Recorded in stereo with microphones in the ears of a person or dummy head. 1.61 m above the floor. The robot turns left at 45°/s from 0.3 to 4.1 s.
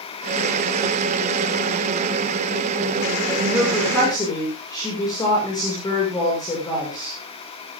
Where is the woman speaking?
165° right, 6.5 m; by 7.2 s 160° left, 6.5 m.